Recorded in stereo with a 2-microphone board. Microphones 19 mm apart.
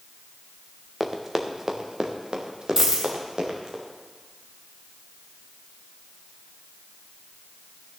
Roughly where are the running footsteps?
Centre.